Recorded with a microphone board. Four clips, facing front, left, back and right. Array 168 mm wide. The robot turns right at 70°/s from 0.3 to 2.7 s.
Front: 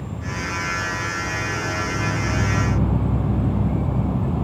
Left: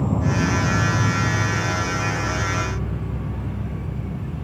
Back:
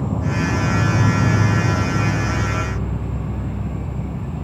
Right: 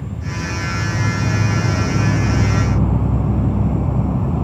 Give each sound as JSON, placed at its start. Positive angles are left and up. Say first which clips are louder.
{"t": 0.0, "sound": "an insect", "louder": "left 6 dB, back 8 dB", "azimuth_deg": 125}